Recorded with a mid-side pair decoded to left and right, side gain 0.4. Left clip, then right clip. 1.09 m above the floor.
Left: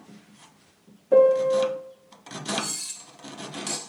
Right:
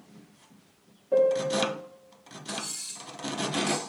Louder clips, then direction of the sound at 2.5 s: Left 6 dB; 40° left.